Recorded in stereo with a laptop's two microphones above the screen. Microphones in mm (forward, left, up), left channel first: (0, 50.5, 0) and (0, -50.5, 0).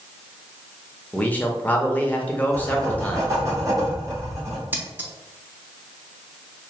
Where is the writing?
35° right (ahead or behind), 1.8 m.